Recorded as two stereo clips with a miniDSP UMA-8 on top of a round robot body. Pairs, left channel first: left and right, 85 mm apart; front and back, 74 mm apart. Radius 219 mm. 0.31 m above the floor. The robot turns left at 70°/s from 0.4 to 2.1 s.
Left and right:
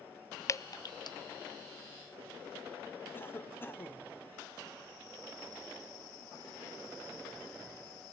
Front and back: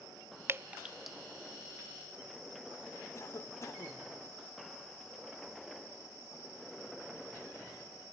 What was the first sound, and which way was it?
Dripping, 135° left.